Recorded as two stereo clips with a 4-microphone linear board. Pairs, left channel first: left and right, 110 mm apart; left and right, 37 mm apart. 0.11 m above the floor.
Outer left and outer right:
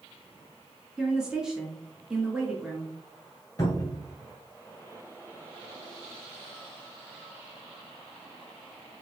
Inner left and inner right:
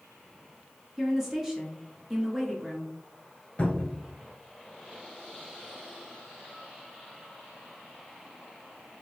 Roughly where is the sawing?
I don't hear sawing.